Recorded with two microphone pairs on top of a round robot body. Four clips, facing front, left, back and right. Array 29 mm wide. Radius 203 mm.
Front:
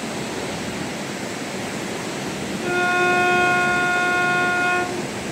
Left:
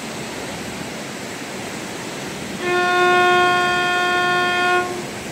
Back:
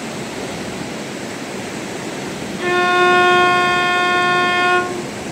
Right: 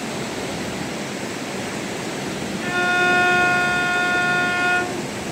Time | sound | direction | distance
2.6 | a violin | 145° left | 2.5 m